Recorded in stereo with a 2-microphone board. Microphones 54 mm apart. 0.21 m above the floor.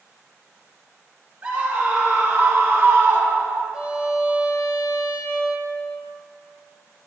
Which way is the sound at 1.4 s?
30° right (ahead or behind).